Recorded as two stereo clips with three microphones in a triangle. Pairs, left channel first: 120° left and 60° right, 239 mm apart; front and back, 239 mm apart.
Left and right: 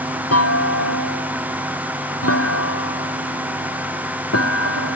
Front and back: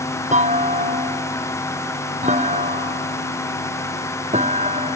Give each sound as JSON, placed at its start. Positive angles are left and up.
{"t": 0.3, "sound": "a clunk", "azimuth_deg": 120}